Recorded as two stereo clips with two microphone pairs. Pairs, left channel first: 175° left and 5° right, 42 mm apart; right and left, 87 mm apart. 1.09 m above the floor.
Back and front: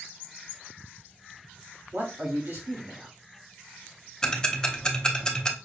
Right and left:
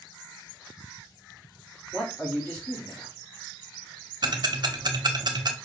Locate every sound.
1.9 s a man speaking: 25° right, 2.5 m
4.2 s ticking: 105° left, 0.7 m